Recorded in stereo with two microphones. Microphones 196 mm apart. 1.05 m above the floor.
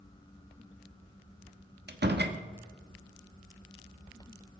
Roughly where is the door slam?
Right.